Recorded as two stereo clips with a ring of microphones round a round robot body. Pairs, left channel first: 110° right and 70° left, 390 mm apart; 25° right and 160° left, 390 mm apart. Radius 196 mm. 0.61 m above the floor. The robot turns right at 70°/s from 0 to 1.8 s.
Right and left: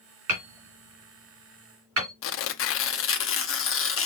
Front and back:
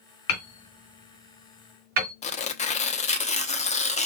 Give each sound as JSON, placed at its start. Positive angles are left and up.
{"t": 0.3, "sound": "hammering", "azimuth_deg": 20, "distance_m": 2.5}
{"t": 2.2, "sound": "tearing paper", "azimuth_deg": -85, "distance_m": 0.9}